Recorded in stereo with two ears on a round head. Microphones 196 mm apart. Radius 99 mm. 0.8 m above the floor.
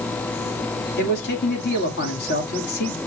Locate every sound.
1.0 s a man speaking: 50° left (ahead or behind), 2 m